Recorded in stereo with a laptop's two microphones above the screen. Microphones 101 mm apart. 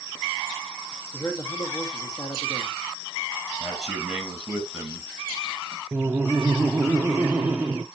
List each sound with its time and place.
1.1 s a man speaking: 40° left (ahead or behind), 1.8 m
3.6 s a man speaking: 10° right (ahead or behind), 5.5 m
5.9 s laughter: 15° right (ahead or behind), 0.7 m